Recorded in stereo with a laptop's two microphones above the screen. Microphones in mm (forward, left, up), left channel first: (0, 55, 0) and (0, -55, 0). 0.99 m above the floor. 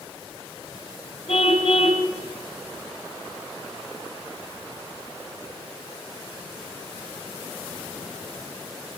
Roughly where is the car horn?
Left.